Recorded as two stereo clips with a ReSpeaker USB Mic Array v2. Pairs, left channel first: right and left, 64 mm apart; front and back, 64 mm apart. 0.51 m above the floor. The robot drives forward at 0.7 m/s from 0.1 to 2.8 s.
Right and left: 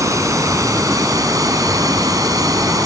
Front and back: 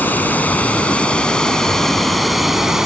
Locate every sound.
0.0 s running water: 60° left; by 2.9 s 100° left